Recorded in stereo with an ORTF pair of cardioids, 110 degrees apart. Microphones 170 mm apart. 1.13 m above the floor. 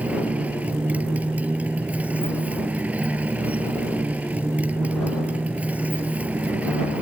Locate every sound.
0.0 s a motorcycle: 10° right